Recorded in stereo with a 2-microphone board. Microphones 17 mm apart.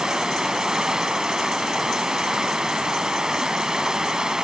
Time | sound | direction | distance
0.0 | running water | 40° right (ahead or behind) | 0.8 m